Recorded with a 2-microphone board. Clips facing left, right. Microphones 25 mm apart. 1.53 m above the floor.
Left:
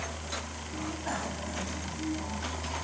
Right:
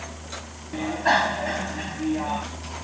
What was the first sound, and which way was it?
A bicycle bell, 60° right (ahead or behind).